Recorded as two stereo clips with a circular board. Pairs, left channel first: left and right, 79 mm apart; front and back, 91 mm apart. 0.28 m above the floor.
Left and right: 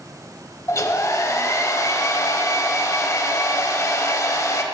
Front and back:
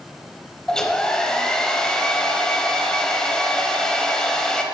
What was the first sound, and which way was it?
A hair dryer, 80° left.